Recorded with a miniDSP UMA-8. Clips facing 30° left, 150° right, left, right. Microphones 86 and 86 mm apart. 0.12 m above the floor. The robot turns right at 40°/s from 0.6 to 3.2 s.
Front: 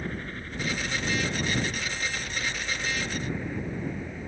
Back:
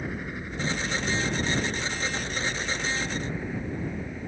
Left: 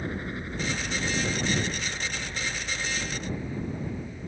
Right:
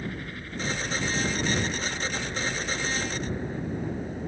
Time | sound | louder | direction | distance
0.0 | a helicopter | back 1 dB, left 3 dB | 135° left | ?